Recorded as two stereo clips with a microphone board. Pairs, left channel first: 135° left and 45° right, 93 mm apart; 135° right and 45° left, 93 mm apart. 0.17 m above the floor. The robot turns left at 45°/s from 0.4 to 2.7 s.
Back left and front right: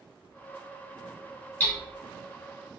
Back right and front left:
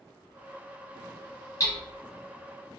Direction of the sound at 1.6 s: 160° right.